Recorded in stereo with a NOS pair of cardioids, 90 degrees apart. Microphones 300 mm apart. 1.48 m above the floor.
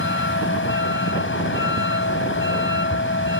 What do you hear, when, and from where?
0.0 s a vehicle: 40° left